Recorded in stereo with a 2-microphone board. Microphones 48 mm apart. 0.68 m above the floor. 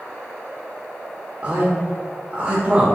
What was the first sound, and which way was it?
A man speaking, 30° right (ahead or behind).